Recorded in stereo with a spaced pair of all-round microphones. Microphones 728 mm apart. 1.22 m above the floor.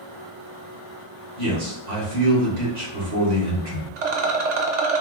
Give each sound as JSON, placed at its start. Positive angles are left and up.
{"t": 1.4, "sound": "a man speaking", "side_deg": -70, "distance_m": 1.5}
{"t": 4.0, "sound": "a rattle", "side_deg": -70, "distance_m": 0.6}